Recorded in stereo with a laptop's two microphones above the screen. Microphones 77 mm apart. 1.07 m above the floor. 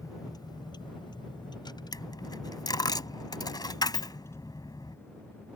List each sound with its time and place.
0.0 s a vehicle: 50° left (ahead or behind); by 5.6 s 30° left (ahead or behind)
1.9 s a dropped coin: 65° left (ahead or behind)